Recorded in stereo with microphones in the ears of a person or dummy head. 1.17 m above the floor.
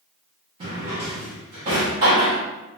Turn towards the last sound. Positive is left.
turn(degrees=-20)  # may be behind; listen again after turning